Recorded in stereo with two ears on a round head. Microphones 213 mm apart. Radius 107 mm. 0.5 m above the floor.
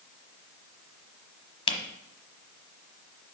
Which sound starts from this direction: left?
A camera shutter, at 1.7 s.